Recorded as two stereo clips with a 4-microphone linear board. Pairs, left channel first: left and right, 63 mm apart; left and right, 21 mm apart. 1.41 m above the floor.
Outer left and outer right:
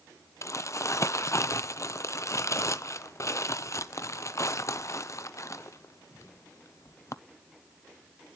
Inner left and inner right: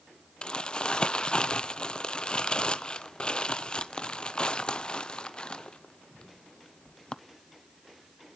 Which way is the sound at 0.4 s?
55° left (ahead or behind).